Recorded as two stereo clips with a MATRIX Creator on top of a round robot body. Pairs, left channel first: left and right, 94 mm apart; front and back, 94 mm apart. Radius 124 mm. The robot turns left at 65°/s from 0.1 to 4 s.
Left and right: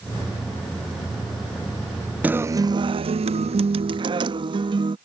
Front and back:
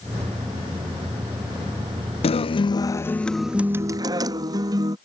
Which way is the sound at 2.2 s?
15° right.